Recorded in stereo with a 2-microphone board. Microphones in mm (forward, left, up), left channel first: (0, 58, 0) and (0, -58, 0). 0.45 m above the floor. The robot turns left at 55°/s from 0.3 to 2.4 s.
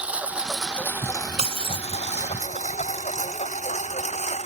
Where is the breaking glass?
60° right (ahead or behind); by 1.9 s 35° right (ahead or behind).